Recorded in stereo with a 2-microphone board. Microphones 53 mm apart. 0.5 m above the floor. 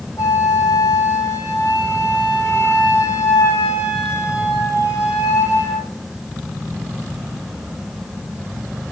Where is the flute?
65° left (ahead or behind), 7.5 m.